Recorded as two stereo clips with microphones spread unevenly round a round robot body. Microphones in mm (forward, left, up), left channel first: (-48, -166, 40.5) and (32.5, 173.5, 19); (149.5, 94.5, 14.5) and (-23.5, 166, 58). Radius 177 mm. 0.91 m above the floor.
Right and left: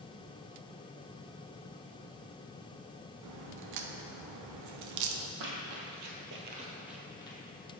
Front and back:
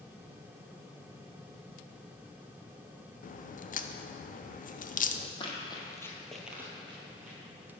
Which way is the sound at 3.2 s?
35° left.